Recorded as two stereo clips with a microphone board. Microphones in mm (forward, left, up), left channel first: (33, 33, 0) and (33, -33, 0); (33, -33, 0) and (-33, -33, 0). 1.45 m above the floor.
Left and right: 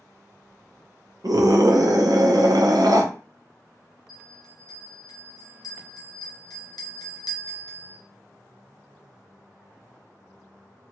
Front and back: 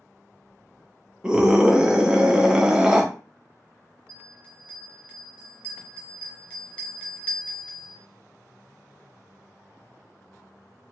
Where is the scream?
100° right, 0.7 m.